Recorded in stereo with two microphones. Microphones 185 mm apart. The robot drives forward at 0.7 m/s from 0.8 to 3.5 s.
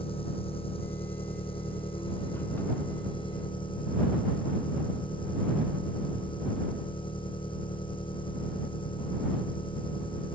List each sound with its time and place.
0.0 s an engine running: 30° left (ahead or behind); by 10.4 s 25° left (ahead or behind)